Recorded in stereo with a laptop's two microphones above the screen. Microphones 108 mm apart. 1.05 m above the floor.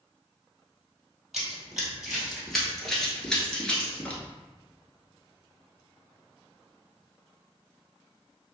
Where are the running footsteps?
5° right (ahead or behind), 1.8 m; by 4.2 s 15° left (ahead or behind), 1.0 m.